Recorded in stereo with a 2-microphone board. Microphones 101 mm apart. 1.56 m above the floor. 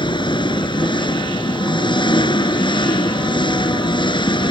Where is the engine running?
50° left (ahead or behind).